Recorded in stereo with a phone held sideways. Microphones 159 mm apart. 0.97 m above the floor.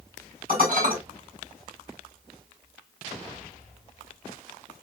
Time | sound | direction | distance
0.5 | dishes clattering | 60° right (ahead or behind) | 3.5 m